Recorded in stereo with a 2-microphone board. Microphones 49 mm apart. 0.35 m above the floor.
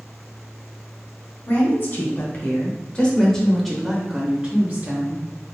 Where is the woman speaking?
55° left (ahead or behind), 1.5 m; by 5.2 s 40° right (ahead or behind), 1.2 m.